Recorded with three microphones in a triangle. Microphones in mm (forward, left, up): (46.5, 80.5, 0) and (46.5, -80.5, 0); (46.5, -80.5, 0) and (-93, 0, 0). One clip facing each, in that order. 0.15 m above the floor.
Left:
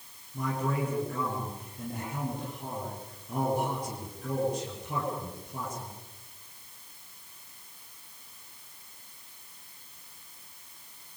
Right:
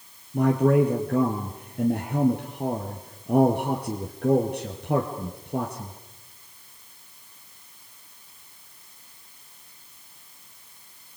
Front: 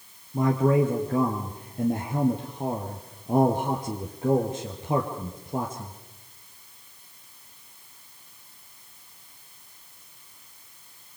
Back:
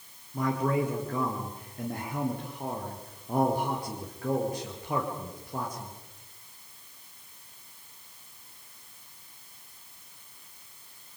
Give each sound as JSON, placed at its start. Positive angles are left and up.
{"t": 0.3, "sound": "a man speaking", "azimuth_deg": -95, "distance_m": 3.0}